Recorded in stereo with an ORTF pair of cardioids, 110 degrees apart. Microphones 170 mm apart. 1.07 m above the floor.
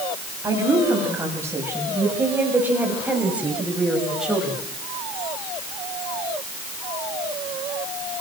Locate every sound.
0.4 s a woman speaking: 20° right, 7 m; by 4.6 s straight ahead, 6 m